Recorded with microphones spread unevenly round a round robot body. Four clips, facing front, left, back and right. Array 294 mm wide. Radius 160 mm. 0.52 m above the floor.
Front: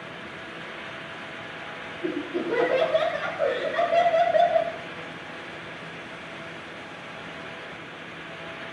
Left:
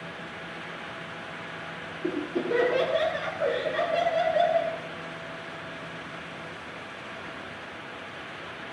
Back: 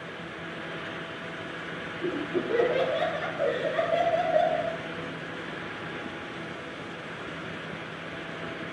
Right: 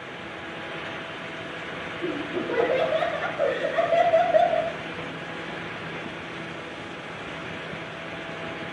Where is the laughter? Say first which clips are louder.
Even, front 1 dB; 80° right, 5 m; by 4.7 s 60° right, 3 m.